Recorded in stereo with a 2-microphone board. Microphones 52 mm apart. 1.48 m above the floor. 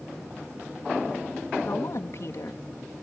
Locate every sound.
1.6 s a woman speaking: 65° left (ahead or behind)